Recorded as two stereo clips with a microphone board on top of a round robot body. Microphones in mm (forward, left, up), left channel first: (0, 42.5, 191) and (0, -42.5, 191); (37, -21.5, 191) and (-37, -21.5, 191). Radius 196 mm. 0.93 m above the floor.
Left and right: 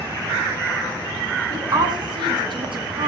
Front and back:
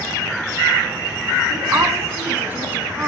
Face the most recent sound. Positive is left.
turn(degrees=-105)